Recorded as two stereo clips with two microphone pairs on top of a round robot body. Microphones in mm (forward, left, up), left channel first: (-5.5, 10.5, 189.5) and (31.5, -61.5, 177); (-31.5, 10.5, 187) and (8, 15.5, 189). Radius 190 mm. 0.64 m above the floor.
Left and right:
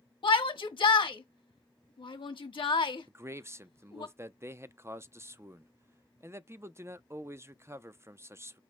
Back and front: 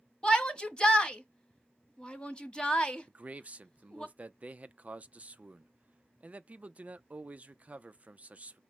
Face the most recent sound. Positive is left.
turn(degrees=-35)